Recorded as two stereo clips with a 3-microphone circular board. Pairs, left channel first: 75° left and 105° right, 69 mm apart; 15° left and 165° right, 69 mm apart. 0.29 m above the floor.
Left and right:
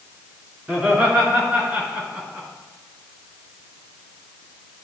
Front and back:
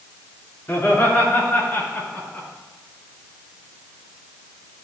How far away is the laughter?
About 3.5 m.